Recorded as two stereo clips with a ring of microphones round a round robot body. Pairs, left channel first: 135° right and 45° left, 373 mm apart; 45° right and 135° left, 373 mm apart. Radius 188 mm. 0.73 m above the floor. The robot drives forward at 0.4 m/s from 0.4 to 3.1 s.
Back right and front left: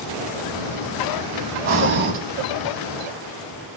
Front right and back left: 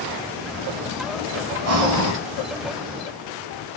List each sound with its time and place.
1.6 s breathing: 90° left, 0.8 m; by 2.2 s 110° left, 0.9 m